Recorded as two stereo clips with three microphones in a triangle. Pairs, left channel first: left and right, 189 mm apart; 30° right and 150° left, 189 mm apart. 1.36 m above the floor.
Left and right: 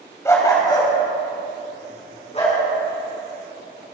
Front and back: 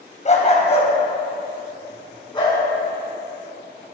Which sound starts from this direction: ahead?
A dog barking, at 0.2 s.